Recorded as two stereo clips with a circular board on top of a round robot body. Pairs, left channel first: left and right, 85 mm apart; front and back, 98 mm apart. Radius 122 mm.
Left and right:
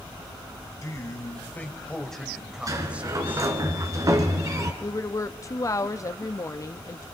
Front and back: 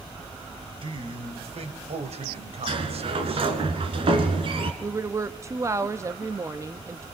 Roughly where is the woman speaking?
Behind left.